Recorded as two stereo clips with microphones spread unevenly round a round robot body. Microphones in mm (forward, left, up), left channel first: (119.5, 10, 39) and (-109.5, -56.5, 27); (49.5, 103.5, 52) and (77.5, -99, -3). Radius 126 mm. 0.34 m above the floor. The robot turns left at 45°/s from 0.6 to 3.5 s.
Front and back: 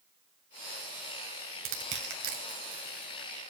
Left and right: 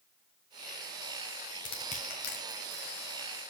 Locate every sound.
1.6 s crushing: 175° left, 1.9 m; by 3.3 s 100° left, 1.9 m